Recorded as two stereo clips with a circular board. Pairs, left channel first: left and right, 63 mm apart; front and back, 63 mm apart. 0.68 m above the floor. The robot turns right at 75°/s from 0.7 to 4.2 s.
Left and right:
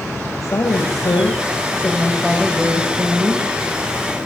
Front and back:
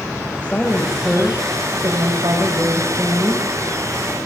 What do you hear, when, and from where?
0.4 s a woman speaking: 65° left, 4 m; by 3.5 s 85° right, 4 m